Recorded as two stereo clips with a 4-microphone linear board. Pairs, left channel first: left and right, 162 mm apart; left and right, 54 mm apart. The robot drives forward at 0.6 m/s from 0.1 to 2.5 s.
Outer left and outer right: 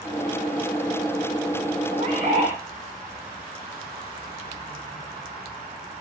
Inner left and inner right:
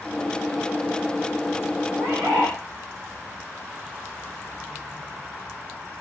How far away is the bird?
About 5.5 m.